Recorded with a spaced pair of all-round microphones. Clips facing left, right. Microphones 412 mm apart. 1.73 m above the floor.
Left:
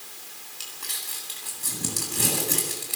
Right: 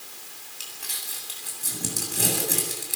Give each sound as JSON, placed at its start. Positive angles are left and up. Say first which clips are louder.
{"t": 0.6, "sound": "crumpling", "louder": "even", "side_deg": 10, "distance_m": 8.5}